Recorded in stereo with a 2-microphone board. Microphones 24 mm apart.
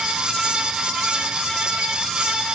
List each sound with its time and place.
Only background noise.